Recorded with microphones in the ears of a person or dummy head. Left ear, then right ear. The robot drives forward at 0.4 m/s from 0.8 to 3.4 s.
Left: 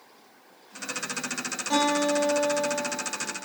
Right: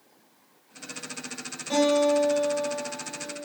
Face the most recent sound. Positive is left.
turn(degrees=35)  # may be behind; listen again after turning